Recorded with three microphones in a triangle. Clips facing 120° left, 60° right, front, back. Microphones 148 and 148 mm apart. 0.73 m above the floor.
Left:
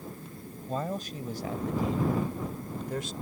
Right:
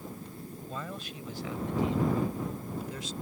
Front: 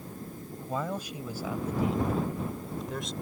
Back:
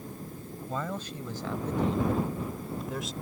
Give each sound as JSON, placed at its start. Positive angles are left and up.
{"t": 0.7, "sound": "a man speaking", "azimuth_deg": 75}